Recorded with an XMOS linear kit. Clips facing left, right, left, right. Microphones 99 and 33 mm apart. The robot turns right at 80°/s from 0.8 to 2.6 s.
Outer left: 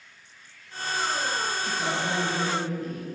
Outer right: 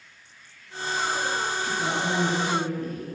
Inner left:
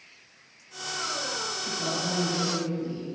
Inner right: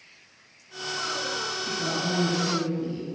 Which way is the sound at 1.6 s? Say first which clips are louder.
Outer right 2 dB, inner right 2 dB; 155° left.